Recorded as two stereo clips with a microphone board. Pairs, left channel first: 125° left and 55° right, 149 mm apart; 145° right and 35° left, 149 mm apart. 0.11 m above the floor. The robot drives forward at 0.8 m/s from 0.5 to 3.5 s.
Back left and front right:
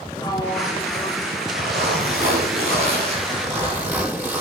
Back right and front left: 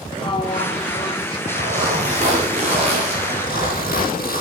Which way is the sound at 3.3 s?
130° right.